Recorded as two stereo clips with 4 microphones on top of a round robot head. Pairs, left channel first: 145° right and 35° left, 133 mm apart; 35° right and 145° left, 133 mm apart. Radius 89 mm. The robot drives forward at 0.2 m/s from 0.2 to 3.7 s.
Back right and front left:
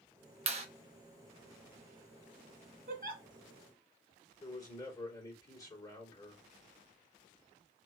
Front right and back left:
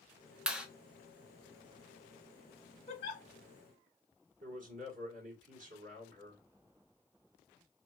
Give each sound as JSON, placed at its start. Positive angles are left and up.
{"t": 0.5, "sound": "a clap", "azimuth_deg": 65, "distance_m": 1.0}
{"t": 2.9, "sound": "a giggle", "azimuth_deg": 5, "distance_m": 0.8}
{"t": 4.4, "sound": "a man speaking", "azimuth_deg": 150, "distance_m": 2.5}